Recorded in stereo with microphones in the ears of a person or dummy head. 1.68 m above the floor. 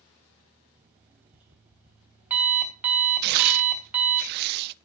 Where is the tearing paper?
55° right (ahead or behind), 0.5 m.